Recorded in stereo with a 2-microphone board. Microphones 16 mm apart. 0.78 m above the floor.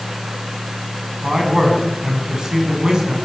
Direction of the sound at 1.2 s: 40° right (ahead or behind).